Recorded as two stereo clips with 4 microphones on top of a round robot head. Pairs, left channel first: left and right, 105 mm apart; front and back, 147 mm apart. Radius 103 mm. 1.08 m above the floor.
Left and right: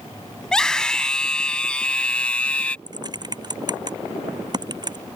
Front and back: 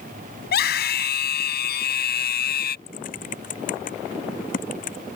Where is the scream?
5° left; by 2.8 s 15° left.